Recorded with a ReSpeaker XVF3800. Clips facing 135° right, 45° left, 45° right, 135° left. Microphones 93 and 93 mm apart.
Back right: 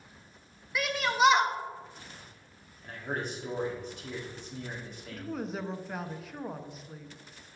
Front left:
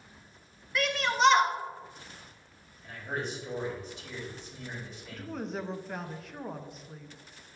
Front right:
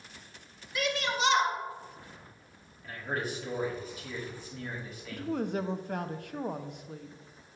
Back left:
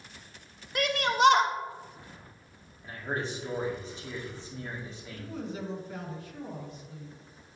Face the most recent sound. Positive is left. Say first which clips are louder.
# back right 1 dB, front right 7 dB
turn(degrees=-50)